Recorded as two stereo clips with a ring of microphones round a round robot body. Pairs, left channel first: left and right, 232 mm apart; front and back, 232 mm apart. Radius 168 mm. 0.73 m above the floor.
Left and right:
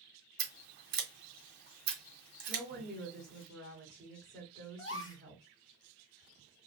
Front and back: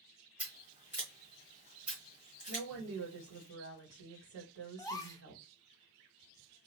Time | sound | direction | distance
0.4 | scissors | 110° right | 1.3 m
2.5 | a woman speaking | 165° right | 1.7 m
4.8 | a gasp | 75° left | 0.9 m